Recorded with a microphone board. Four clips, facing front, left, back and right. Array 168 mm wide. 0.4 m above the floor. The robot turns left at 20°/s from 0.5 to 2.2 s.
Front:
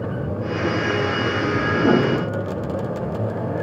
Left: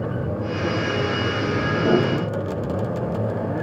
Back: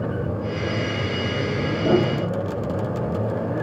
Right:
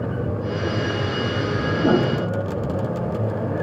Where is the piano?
40° right, 4.5 m; by 2.7 s 50° right, 4.5 m.